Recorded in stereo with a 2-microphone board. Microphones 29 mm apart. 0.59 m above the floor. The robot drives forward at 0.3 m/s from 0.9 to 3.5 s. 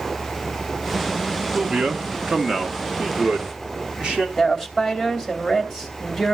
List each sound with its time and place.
1.5 s a man speaking: 30° right (ahead or behind), 1.0 m; by 4.3 s 20° right (ahead or behind), 1.4 m
4.4 s a woman speaking: 5° left (ahead or behind), 2.5 m